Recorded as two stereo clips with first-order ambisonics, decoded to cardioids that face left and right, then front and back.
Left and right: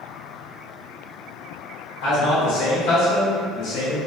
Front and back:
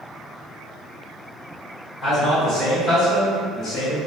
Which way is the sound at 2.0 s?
75° left.